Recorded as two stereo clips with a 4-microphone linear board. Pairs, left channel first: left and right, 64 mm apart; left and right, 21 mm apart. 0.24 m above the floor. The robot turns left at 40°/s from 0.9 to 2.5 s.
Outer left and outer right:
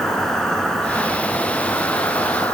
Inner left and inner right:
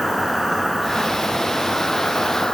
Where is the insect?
170° left, 1.3 m; by 2.5 s 105° left, 1.3 m.